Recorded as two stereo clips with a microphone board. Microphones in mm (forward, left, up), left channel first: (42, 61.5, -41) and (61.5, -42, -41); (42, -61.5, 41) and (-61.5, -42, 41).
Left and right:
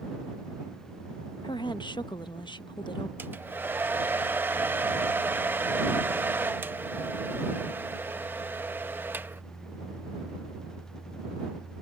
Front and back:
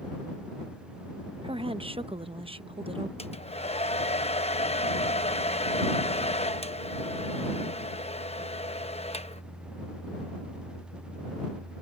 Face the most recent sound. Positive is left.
turn(degrees=-5)